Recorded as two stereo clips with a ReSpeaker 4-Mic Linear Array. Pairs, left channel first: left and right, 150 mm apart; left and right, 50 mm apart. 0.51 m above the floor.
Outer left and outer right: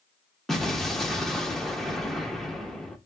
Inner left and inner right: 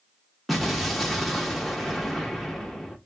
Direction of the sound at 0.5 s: Centre (ahead or behind).